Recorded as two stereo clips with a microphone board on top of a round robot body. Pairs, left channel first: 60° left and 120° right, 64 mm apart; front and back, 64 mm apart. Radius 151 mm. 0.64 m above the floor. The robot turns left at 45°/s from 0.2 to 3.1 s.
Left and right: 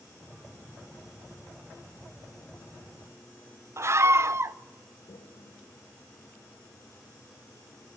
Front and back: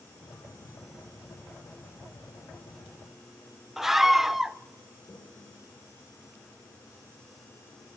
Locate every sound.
3.8 s a scream: 95° right, 0.6 m
5.1 s a toilet flushing: 45° left, 3 m